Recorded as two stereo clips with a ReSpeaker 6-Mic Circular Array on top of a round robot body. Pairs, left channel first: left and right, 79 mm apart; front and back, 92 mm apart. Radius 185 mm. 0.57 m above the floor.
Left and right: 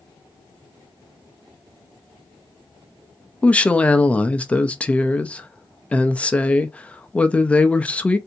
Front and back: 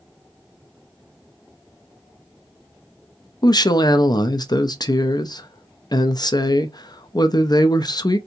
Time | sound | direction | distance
3.4 | a woman speaking | 20° left | 0.7 m